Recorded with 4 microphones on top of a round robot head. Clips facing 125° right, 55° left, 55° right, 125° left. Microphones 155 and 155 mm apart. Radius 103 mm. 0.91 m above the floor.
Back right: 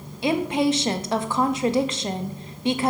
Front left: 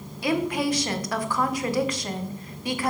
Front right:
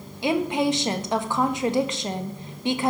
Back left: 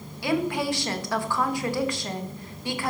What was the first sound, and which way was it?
A woman speaking, 95° right.